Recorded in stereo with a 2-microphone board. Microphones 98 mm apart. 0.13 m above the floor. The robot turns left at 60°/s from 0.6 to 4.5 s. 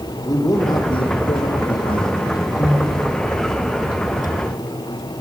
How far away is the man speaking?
About 7 m.